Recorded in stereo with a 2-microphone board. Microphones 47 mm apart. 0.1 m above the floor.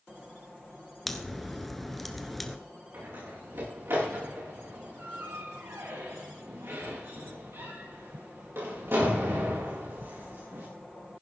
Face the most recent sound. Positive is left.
turn(degrees=-65)  # may be behind; listen again after turning